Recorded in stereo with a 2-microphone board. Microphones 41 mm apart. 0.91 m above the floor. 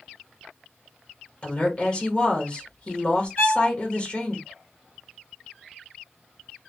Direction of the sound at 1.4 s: 30° left (ahead or behind).